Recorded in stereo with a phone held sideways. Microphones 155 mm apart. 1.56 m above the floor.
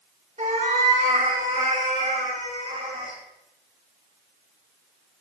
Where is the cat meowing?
45° right (ahead or behind), 1.6 m; by 3.2 s 40° right (ahead or behind), 4.5 m.